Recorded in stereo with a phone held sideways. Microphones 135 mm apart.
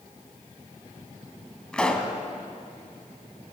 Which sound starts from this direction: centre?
A pop, at 1.7 s.